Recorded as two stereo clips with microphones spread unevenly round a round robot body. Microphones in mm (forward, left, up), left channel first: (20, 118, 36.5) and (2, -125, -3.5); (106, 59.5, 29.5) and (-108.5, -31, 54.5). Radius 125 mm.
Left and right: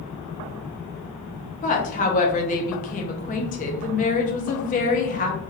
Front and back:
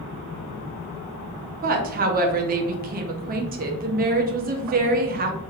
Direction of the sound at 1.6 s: 150° left.